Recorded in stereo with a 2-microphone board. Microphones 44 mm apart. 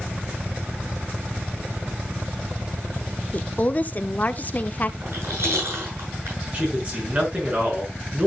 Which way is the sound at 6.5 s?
35° right (ahead or behind).